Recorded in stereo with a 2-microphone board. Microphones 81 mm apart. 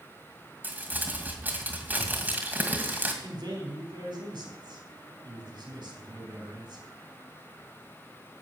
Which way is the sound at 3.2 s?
70° right (ahead or behind).